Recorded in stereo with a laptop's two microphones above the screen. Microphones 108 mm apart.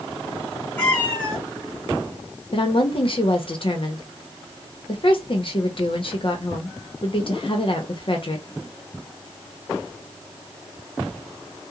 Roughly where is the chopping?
No chopping in this recording.